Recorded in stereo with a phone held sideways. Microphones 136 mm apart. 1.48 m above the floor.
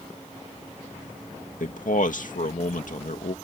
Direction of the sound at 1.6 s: 75° left (ahead or behind).